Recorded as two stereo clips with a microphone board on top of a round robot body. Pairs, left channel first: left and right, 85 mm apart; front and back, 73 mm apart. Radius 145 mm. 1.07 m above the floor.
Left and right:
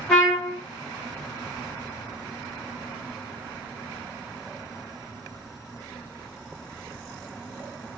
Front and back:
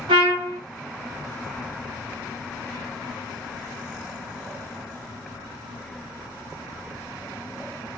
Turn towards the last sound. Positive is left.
turn(degrees=175)